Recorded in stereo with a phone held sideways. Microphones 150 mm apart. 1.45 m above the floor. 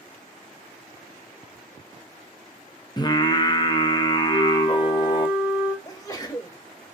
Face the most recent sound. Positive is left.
turn(degrees=20)  # may be behind; listen again after turning